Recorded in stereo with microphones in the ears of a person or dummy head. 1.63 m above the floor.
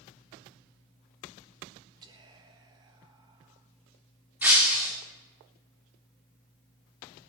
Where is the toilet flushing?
I don't hear a toilet flushing.